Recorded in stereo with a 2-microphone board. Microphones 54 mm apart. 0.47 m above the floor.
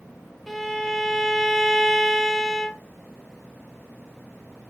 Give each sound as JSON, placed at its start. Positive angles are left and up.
{"t": 0.5, "sound": "a violin", "side_deg": 5, "distance_m": 0.5}